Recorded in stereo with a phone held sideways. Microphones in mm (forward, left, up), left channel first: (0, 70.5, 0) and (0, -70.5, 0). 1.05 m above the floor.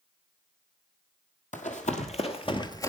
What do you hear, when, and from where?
1.5 s running footsteps: 60° left (ahead or behind), 2 m; by 2.9 s 20° left (ahead or behind), 1.1 m